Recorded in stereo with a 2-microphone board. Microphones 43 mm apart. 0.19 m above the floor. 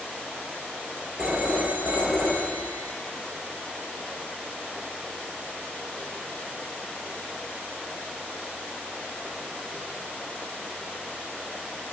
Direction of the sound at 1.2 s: 25° right (ahead or behind).